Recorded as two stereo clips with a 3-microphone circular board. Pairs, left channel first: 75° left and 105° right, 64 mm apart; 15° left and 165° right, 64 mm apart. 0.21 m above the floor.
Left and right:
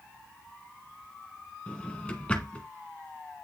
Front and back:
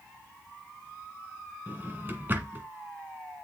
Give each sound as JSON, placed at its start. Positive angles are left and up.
{"t": 1.7, "sound": "a drawer", "azimuth_deg": 145, "distance_m": 1.3}